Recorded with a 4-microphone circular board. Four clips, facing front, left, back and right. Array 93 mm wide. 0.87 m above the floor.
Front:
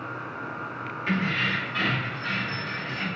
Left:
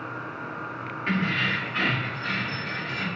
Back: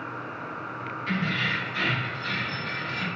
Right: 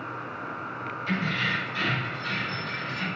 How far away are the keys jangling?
About 1.1 m.